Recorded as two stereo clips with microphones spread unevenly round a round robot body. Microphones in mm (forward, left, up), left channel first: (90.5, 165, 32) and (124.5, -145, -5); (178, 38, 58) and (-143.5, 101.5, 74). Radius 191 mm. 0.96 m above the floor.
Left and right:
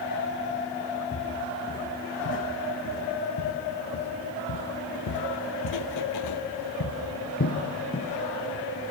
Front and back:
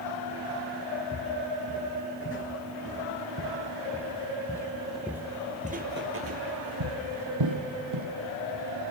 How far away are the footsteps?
About 5.5 m.